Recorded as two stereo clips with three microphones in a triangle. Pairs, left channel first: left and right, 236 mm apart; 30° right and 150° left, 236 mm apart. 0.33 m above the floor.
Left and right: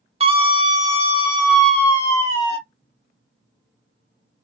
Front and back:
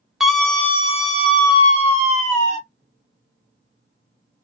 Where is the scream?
125° right, 1.0 m; by 2.6 s 20° left, 1.4 m.